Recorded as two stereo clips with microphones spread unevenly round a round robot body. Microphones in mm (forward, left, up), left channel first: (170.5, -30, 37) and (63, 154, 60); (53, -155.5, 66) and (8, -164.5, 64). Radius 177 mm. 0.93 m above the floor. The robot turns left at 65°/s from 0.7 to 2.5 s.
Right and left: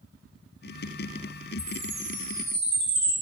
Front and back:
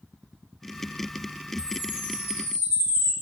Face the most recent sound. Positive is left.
turn(degrees=-155)